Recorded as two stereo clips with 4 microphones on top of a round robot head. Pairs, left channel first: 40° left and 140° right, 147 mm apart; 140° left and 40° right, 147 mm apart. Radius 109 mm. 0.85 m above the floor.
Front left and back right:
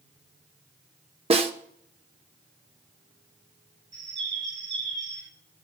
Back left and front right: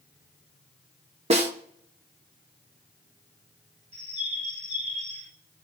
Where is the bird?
80° right, 6 m.